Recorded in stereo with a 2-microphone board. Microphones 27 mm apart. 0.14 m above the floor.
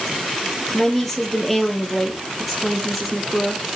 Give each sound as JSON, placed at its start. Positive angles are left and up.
{"t": 0.7, "sound": "a woman speaking", "side_deg": 10, "distance_m": 4.0}